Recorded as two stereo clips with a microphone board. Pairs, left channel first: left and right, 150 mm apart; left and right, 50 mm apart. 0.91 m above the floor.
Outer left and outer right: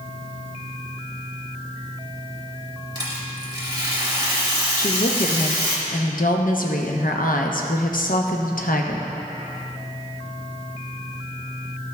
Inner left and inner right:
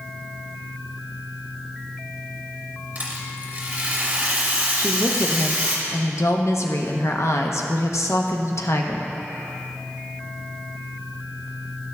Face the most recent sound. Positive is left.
turn(degrees=65)  # may be behind; listen again after turning